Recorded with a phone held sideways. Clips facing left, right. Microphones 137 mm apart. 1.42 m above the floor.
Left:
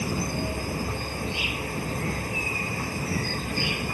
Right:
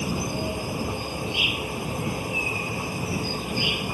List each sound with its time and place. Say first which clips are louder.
0.0 s an insect: right 1 dB; 15° right (ahead or behind)